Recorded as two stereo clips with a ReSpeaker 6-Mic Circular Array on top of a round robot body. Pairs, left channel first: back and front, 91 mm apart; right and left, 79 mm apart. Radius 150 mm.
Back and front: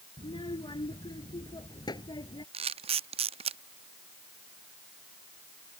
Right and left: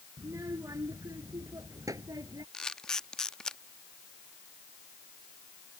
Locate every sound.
0.2 s a child speaking: 145° left; by 2.4 s 135° left
2.5 s a camera shutter: 5° right